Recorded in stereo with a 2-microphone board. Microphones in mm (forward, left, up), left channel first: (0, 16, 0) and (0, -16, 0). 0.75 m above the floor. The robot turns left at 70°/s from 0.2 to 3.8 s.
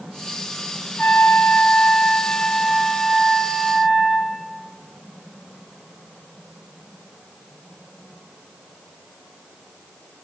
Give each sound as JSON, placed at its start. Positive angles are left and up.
{"t": 1.0, "sound": "a trumpet", "azimuth_deg": 135, "distance_m": 3.0}